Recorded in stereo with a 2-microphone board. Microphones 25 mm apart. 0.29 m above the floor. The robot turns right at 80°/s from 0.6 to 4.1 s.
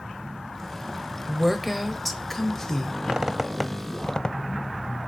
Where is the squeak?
35° right (ahead or behind), 0.5 m; by 4.4 s 25° left (ahead or behind), 0.5 m.